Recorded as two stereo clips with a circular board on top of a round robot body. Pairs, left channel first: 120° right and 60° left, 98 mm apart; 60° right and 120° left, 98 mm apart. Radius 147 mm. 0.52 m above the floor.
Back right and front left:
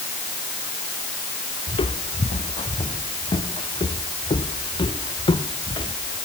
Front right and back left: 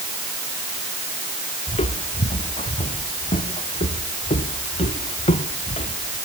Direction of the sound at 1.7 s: 85° right.